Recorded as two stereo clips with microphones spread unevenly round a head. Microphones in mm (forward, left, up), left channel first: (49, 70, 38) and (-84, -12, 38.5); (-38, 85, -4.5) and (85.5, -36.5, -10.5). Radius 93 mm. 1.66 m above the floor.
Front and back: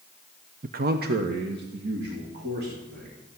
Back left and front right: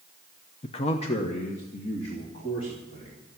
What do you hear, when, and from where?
0.6 s a man speaking: 175° right, 0.6 m; by 3.1 s 165° right, 4 m